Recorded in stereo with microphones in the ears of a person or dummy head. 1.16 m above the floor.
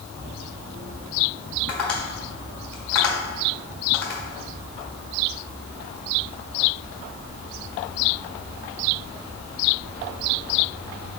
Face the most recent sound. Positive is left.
turn(degrees=5)  # may be behind; listen again after turning